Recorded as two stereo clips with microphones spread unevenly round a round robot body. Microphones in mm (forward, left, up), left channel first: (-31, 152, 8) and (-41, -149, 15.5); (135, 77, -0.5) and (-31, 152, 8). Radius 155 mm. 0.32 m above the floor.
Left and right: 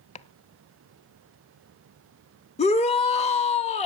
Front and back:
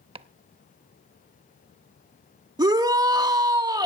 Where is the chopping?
130° left, 0.5 m.